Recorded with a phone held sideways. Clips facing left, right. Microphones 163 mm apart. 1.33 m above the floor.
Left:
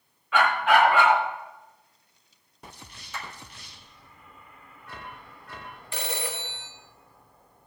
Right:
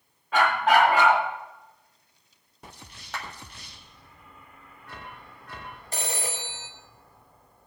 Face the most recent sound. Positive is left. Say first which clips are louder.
# even
turn(degrees=-40)  # may be behind; listen again after turning